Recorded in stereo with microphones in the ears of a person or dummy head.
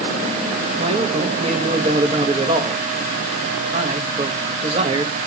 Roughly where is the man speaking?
Right.